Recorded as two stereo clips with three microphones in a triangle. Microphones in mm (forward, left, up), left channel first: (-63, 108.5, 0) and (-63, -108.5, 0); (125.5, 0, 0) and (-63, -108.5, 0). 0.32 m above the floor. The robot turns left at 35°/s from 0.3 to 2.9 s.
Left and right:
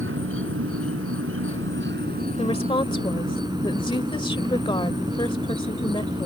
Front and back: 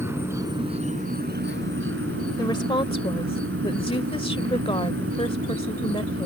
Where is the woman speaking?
75° left; by 6.3 s 55° left.